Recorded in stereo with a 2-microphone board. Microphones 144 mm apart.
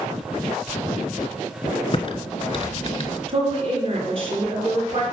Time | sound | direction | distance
1.9 | typing on a keyboard | 40° left (ahead or behind) | 0.6 m
3.3 | a woman speaking | 40° right (ahead or behind) | 3 m